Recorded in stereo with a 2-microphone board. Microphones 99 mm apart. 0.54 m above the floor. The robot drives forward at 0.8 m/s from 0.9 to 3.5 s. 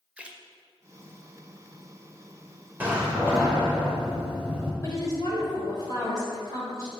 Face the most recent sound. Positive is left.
turn(degrees=40)  # may be behind; listen again after turning